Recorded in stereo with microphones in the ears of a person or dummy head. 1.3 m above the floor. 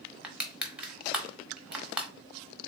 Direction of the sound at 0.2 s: 10° right (ahead or behind).